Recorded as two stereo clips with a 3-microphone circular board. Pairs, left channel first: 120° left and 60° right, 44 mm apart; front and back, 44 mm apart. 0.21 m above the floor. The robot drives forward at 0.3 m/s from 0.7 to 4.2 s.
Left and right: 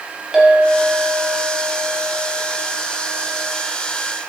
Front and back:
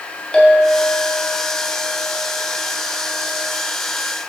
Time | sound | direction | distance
0.3 | a clink | straight ahead | 0.9 m